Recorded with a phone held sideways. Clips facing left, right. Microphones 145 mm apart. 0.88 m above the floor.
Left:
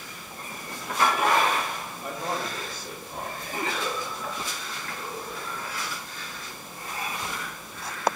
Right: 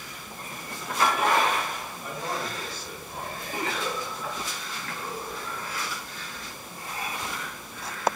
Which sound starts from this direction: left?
A man speaking, at 2.0 s.